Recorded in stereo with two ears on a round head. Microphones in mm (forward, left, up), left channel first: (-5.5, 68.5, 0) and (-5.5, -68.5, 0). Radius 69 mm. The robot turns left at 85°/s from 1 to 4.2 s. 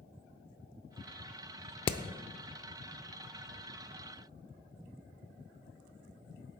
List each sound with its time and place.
1.9 s hammering: 30° left (ahead or behind), 0.6 m; by 2.0 s 20° left (ahead or behind), 0.6 m